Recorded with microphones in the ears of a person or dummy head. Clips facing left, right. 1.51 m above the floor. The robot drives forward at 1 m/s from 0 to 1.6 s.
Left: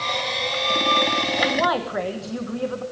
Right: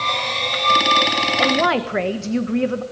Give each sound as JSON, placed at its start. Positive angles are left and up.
{"t": 1.4, "sound": "a woman speaking", "side_deg": -40, "distance_m": 1.2}